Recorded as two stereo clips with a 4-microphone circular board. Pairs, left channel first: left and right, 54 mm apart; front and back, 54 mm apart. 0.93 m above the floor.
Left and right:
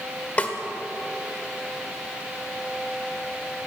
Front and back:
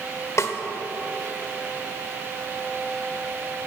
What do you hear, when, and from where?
0.4 s a snare drum: 30° left, 1.5 m